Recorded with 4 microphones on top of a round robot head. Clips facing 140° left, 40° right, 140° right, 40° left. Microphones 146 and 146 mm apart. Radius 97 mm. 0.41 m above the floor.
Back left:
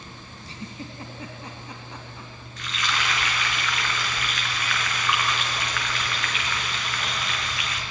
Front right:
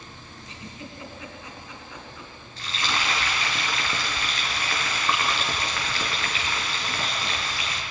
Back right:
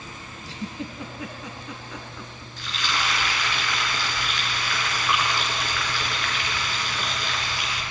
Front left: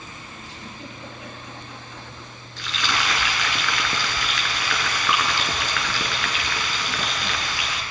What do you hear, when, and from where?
0.5 s a giggle: 160° right, 4 m
2.6 s frying: 20° left, 4 m